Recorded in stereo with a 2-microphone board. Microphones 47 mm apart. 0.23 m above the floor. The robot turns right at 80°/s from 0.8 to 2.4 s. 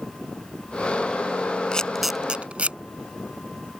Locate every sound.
1.7 s a camera shutter: 20° left (ahead or behind); by 2.8 s 25° right (ahead or behind)